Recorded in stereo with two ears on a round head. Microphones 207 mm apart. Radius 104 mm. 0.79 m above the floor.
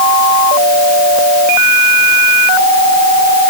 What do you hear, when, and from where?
Only background noise.